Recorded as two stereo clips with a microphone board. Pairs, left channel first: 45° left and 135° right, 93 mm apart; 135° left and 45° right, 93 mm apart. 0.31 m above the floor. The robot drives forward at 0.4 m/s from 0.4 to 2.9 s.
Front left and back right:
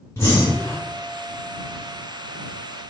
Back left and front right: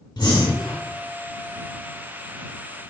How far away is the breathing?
About 3 m.